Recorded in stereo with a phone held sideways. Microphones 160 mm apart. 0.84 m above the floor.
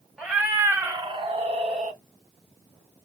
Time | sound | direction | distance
0.2 | a cat meowing | 5° right (ahead or behind) | 1.0 m